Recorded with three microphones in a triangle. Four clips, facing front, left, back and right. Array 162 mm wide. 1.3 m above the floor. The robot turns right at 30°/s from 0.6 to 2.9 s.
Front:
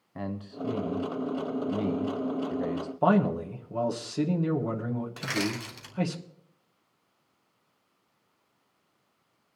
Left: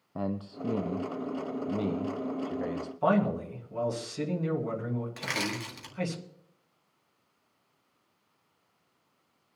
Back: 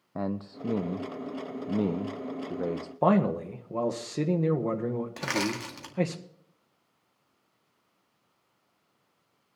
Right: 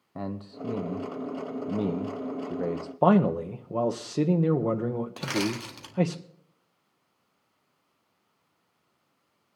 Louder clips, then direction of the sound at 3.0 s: Right 5 dB, even; 105° right.